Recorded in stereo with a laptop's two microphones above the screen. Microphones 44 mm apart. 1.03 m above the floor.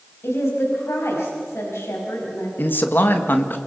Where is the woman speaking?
85° left, 5 m.